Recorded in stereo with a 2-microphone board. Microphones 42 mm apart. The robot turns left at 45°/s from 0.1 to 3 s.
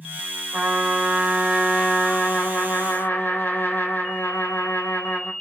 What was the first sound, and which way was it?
A trumpet, 125° right.